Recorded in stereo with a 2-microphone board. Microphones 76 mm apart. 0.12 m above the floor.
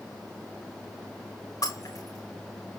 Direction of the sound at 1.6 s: 50° left (ahead or behind).